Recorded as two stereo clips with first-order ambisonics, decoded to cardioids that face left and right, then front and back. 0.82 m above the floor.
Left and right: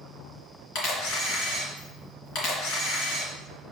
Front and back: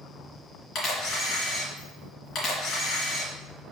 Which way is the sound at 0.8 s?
55° left.